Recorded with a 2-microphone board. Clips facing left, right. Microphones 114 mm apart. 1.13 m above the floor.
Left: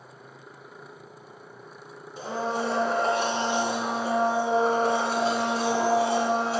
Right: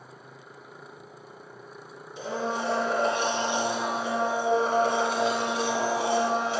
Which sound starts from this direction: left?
A blender, at 2.2 s.